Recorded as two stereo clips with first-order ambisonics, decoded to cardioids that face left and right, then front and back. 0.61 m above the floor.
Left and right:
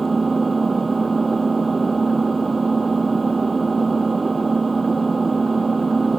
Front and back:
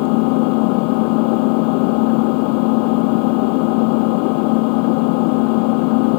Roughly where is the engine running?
Ahead.